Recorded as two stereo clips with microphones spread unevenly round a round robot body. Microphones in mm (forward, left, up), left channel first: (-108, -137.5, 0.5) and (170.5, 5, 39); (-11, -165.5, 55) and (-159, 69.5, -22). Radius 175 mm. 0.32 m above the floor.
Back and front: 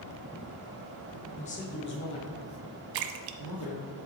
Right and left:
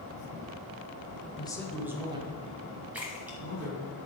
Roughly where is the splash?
Ahead left.